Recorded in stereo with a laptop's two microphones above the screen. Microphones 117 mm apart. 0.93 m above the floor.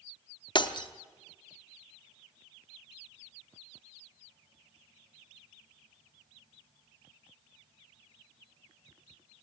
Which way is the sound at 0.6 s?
40° left (ahead or behind).